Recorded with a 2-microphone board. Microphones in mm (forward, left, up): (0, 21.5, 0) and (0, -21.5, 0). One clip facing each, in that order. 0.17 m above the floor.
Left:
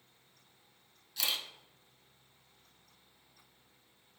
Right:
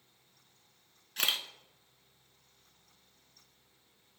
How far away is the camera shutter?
About 0.6 m.